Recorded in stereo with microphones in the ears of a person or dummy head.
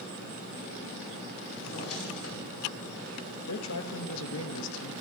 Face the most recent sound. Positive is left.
turn(degrees=80)